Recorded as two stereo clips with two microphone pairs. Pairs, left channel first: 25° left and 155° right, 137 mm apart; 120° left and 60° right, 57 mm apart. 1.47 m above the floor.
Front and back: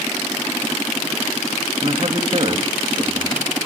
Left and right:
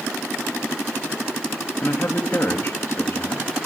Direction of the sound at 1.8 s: 160° left.